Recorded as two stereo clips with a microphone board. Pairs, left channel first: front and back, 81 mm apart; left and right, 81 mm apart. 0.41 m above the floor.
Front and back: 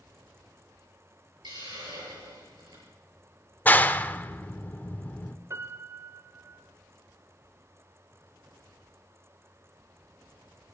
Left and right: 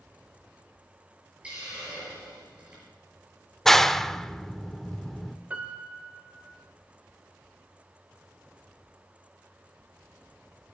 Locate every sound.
1.4 s a hiss: 165° right, 7 m
3.6 s a clap: 10° left, 0.6 m
5.5 s a piano: 150° right, 1.3 m